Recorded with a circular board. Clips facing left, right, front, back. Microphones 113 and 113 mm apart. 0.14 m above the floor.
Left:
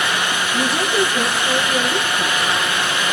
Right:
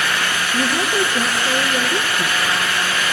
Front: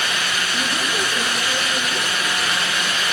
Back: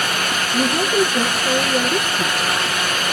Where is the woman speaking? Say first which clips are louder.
Even, back 10 dB; 165° right, 2.5 m.